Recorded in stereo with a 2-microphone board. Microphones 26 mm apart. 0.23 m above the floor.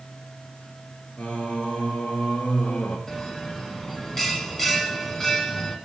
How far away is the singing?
About 3 m.